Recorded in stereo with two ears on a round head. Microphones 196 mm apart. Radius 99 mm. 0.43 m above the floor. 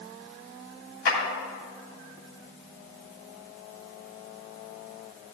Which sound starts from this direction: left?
A clap, at 1.1 s.